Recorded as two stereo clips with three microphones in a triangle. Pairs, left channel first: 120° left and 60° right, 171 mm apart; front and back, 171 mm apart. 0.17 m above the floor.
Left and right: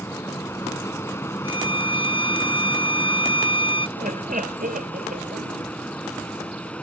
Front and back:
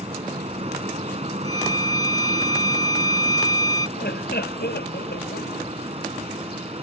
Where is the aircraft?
175° right; by 6.8 s 160° right.